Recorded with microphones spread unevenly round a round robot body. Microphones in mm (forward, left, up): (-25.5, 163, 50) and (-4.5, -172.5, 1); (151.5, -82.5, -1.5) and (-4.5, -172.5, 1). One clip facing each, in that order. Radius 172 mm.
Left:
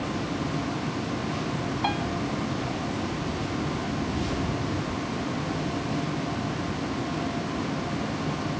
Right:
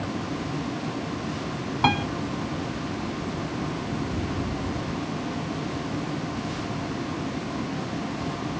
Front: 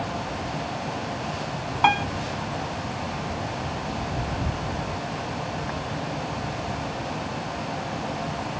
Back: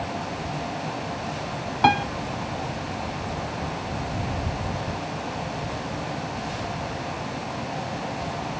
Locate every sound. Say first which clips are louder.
1.8 s a piano: right 8 dB, back 2 dB; 100° right